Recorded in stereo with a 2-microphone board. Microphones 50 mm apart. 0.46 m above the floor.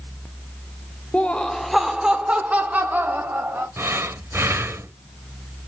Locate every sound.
1.1 s laughter: 30° left (ahead or behind), 1.3 m; by 3.7 s 45° right (ahead or behind), 3 m
3.8 s breathing: 65° right (ahead or behind), 1.1 m